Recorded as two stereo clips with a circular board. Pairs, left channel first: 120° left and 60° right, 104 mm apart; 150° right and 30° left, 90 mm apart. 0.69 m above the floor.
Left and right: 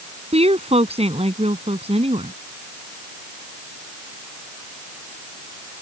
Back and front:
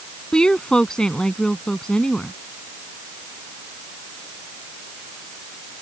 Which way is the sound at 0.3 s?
70° right.